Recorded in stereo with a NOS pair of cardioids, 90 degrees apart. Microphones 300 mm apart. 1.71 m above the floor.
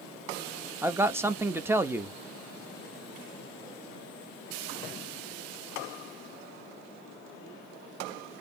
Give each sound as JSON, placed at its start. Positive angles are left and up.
{"t": 0.8, "sound": "a man speaking", "azimuth_deg": -10, "distance_m": 0.5}